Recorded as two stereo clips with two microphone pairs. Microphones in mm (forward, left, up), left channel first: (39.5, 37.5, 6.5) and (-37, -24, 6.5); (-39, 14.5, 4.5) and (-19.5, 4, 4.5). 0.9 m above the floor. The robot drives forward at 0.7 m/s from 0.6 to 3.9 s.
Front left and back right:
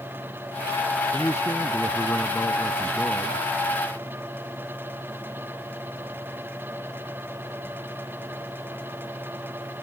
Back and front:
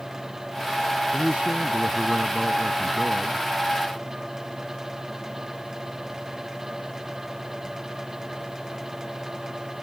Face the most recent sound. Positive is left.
turn(degrees=-30)